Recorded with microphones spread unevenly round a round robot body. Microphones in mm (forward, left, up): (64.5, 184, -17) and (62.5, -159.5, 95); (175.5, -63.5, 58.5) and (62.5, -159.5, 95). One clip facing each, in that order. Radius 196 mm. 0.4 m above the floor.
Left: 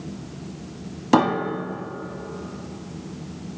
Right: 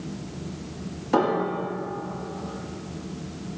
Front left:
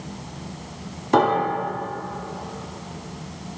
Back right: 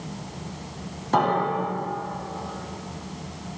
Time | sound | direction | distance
1.1 | a piano | 120° left | 1.0 m